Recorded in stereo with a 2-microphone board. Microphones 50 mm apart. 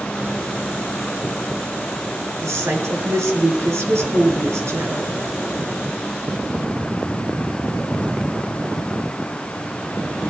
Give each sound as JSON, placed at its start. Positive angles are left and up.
{"t": 2.4, "sound": "a woman speaking", "side_deg": -75, "distance_m": 4.0}